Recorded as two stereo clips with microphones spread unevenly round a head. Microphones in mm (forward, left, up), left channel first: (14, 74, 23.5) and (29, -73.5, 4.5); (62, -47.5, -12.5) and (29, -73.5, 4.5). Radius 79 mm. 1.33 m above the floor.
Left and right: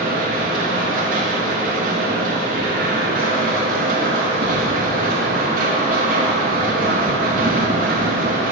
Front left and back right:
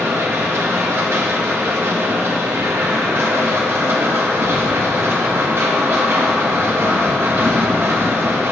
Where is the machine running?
120° right, 1.8 m.